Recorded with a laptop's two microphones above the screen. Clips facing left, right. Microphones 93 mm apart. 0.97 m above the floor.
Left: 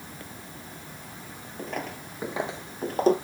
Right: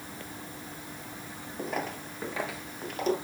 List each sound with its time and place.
1.6 s footsteps: 10° right (ahead or behind), 1.4 m; by 3.1 s 40° left (ahead or behind), 1.4 m